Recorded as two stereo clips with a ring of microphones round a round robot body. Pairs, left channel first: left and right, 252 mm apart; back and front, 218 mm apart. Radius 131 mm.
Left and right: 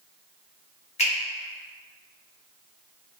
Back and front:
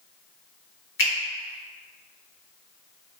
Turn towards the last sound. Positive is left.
turn(degrees=155)